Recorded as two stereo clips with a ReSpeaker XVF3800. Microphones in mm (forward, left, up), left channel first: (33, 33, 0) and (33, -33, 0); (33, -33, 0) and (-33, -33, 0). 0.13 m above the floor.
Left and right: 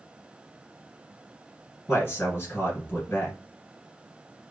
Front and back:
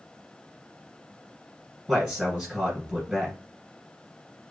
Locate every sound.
1.9 s a man speaking: 120° left, 1.8 m